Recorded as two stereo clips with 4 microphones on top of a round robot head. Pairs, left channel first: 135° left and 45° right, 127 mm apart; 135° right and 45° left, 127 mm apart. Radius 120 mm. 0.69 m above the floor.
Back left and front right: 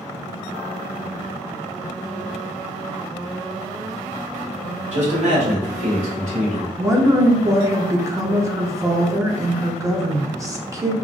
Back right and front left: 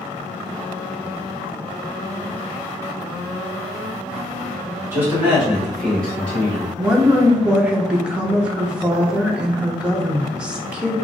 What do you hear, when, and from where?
4.9 s a man speaking: 25° right, 1.7 m; by 6.7 s 65° right, 2 m
6.8 s a woman speaking: 25° right, 0.8 m